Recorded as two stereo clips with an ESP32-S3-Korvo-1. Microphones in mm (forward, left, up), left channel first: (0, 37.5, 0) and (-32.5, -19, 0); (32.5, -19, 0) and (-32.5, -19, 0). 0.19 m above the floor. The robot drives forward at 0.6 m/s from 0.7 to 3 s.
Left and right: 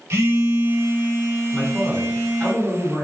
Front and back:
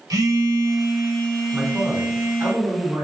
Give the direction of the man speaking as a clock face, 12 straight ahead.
7 o'clock.